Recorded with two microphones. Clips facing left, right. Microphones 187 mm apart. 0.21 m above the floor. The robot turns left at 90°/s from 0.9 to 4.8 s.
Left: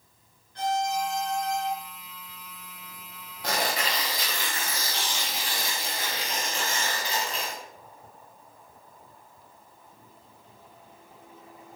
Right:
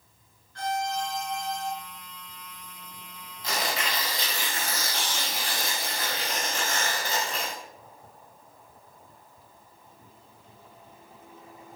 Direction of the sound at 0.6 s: 20° left.